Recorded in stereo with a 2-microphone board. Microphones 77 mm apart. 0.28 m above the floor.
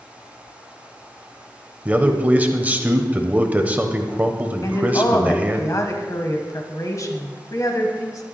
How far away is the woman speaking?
About 1.3 m.